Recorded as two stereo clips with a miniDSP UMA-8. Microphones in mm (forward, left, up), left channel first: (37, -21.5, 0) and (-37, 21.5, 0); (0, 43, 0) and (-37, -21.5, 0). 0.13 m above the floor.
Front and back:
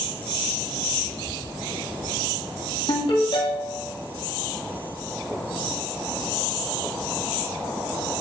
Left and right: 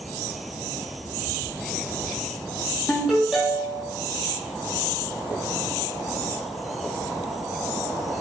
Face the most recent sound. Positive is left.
turn(degrees=-35)